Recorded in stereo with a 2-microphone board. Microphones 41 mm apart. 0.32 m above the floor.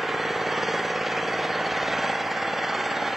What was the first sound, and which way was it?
An engine running, 5° right (ahead or behind).